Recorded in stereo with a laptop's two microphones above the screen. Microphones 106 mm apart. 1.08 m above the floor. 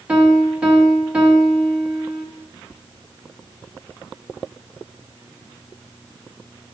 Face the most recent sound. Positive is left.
turn(degrees=-10)  # may be behind; listen again after turning